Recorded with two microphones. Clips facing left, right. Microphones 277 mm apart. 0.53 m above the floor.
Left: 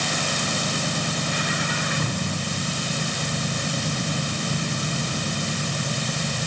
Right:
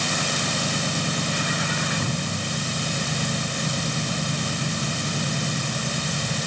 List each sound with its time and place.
Only background noise.